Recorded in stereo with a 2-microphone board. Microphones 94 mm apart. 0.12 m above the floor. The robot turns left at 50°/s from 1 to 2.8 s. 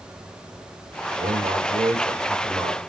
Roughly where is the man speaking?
Right.